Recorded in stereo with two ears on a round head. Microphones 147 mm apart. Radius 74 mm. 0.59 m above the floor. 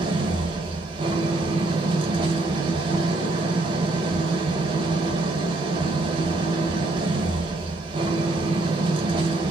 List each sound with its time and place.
0.0 s an engine running: 30° right (ahead or behind), 1.9 m